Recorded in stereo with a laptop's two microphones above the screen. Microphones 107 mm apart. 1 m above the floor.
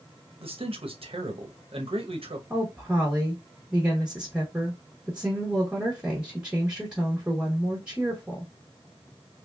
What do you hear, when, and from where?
0.4 s a man speaking: 65° right (ahead or behind), 0.9 m
2.5 s a woman speaking: 10° right (ahead or behind), 0.8 m